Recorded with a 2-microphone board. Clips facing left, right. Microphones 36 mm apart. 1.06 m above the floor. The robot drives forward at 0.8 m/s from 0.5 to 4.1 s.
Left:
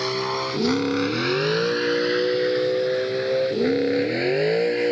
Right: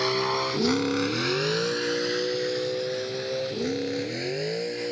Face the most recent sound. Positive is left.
turn(degrees=35)  # may be behind; listen again after turning